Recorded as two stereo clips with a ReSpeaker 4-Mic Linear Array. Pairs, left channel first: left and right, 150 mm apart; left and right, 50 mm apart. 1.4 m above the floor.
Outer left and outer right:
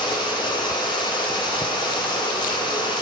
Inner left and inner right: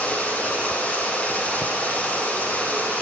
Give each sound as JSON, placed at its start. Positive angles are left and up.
{"t": 0.0, "sound": "running water", "side_deg": 30, "distance_m": 7.0}